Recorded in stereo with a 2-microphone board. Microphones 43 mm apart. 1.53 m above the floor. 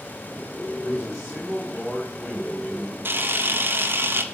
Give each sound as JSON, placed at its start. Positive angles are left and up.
{"t": 0.8, "sound": "a man speaking", "side_deg": -5, "distance_m": 3.5}
{"t": 3.0, "sound": "a camera shutter", "side_deg": -55, "distance_m": 0.9}